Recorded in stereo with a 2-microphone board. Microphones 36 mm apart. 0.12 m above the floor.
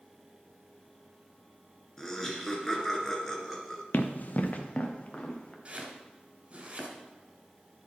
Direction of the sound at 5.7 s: 35° right (ahead or behind).